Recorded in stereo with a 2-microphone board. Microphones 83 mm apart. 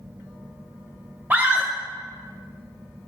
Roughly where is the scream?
Right.